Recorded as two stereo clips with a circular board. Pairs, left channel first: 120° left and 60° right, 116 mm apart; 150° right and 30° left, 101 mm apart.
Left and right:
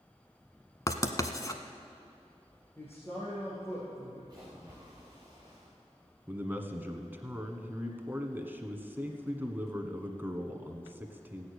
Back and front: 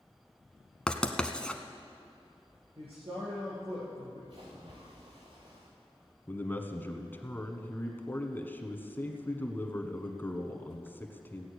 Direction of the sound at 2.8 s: 50° left.